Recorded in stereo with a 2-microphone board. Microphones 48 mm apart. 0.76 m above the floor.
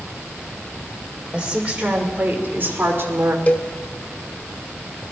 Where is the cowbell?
35° left (ahead or behind), 1.0 m.